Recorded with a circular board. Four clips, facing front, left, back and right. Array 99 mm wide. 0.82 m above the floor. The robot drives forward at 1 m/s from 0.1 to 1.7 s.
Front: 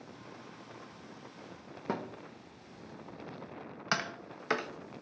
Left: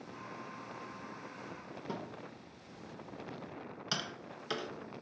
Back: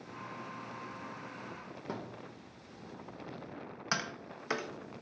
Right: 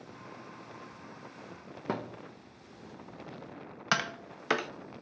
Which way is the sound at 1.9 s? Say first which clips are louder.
Right 7 dB, front 6 dB; 60° right.